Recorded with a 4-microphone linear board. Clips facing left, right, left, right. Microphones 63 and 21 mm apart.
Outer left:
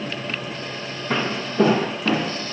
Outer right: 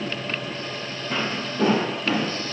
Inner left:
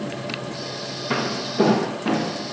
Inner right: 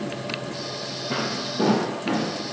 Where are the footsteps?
65° left (ahead or behind), 1.2 m; by 2.3 s 85° left, 2 m.